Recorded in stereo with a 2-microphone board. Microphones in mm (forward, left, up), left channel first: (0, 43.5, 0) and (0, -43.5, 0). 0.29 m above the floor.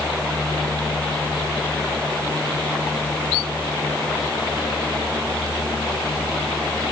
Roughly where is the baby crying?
No baby crying in this recording.